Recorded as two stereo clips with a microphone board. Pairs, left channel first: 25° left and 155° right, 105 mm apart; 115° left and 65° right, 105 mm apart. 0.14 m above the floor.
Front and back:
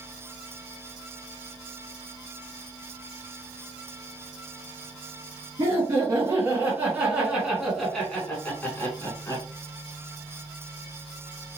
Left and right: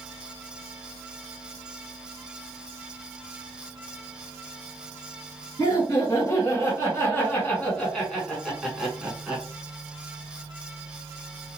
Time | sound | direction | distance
5.6 | laughter | 155° left | 1.9 m